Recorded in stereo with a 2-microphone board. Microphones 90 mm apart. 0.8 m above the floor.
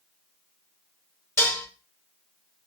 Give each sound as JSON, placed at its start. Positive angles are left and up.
{"t": 1.4, "sound": "dishes clattering", "side_deg": 30, "distance_m": 1.1}